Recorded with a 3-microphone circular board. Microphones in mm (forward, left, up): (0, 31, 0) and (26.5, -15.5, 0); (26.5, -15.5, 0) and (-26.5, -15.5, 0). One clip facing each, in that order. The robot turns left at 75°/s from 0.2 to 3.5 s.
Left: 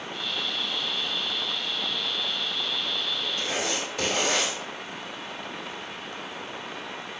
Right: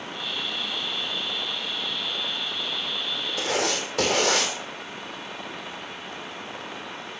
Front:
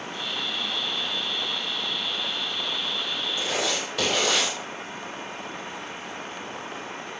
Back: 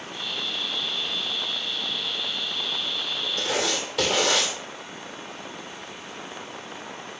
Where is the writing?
80° right, 3 m; by 4.5 s 90° right, 3 m.